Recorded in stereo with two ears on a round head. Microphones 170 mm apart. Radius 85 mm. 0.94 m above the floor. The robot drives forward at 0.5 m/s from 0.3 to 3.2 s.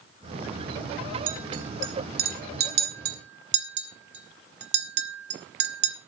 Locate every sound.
1.3 s a clink: 45° right (ahead or behind), 3 m; by 6.0 s 60° right (ahead or behind), 2.5 m